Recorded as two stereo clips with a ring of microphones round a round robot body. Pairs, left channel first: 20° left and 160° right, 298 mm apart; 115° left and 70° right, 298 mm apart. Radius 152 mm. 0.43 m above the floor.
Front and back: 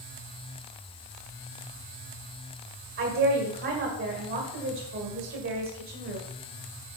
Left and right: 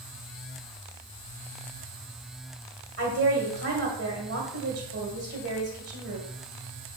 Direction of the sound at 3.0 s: 120° right.